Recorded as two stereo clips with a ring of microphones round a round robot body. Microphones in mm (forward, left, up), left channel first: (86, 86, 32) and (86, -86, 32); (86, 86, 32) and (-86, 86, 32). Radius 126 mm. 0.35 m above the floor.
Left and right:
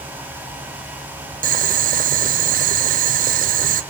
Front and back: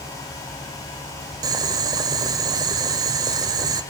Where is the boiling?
115° right, 0.5 m.